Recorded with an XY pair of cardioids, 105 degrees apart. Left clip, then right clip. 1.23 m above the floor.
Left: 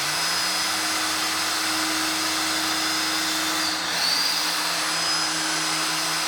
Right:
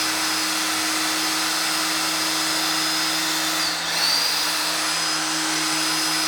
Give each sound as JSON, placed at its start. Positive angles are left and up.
{"t": 0.0, "sound": "a machine running", "azimuth_deg": -40, "distance_m": 0.9}